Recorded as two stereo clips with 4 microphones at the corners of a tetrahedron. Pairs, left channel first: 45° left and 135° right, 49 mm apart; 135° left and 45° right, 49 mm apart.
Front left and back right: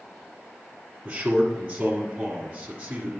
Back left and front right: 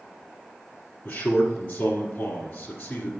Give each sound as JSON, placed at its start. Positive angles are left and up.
{"t": 1.1, "sound": "a man speaking", "azimuth_deg": 170, "distance_m": 1.5}